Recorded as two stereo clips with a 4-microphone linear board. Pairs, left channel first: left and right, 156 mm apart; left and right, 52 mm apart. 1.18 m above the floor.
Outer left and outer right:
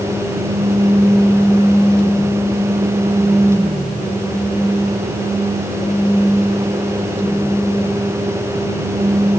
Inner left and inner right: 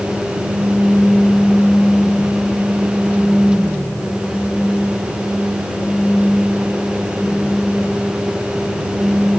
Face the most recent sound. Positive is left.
No sound to turn to.